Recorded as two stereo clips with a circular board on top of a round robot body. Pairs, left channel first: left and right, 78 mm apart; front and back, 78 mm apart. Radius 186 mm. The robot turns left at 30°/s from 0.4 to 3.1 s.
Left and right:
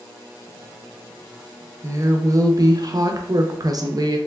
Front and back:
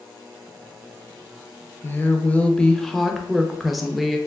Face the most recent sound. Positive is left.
turn(degrees=-90)